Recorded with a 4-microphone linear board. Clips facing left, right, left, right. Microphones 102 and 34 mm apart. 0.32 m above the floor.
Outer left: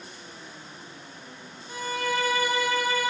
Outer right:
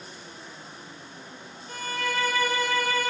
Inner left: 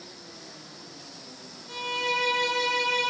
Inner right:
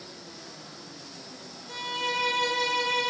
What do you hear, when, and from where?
1.7 s a violin: 15° left (ahead or behind), 0.9 m